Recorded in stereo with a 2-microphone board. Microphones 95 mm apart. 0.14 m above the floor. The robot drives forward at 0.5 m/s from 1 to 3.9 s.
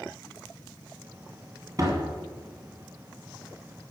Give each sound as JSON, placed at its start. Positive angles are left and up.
{"t": 1.8, "sound": "a door slam", "side_deg": -40, "distance_m": 2.0}